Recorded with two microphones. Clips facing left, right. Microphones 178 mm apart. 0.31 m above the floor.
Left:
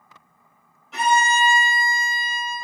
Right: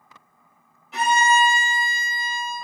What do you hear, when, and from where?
0.9 s a violin: 5° right (ahead or behind), 1.6 m